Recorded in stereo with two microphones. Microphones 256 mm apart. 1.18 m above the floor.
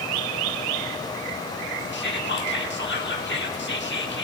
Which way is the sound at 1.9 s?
45° left (ahead or behind).